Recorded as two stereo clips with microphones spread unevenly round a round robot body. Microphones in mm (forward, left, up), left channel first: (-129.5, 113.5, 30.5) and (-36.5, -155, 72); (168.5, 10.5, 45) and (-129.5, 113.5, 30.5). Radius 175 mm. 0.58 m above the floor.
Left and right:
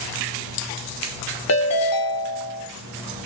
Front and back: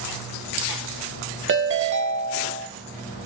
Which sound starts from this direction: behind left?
A ringtone, at 1.5 s.